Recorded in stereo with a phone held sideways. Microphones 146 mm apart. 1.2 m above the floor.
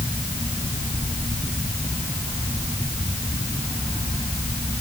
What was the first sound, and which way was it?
Only background noise.